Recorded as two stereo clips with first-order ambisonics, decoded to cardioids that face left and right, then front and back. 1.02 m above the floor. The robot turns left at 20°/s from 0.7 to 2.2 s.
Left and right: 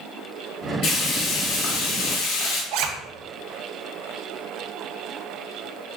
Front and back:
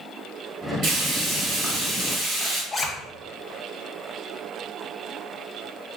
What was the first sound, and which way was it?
Frying, 145° left.